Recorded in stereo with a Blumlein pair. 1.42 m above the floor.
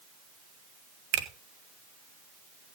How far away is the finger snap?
About 1.1 m.